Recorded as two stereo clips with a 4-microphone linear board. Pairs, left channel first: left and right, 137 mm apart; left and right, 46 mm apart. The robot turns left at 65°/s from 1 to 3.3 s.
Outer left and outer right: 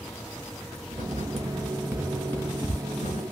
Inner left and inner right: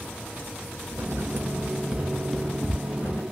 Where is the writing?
70° right (ahead or behind), 1.4 m; by 3.2 s 70° left (ahead or behind), 1.4 m.